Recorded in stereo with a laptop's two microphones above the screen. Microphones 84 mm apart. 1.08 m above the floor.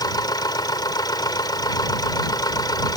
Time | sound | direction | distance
0.0 | a machine running | 55° left (ahead or behind) | ?